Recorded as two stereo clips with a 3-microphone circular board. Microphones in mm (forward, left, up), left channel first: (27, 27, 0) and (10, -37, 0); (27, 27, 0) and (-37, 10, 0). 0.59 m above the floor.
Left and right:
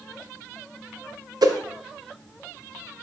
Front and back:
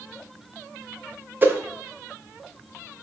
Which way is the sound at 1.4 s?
105° right.